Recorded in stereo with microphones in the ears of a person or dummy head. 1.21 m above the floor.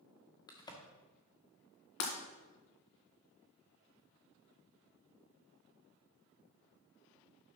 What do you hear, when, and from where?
0.5 s a crack: 20° left (ahead or behind), 1.4 m
2.0 s breaking glass: 60° left (ahead or behind), 2 m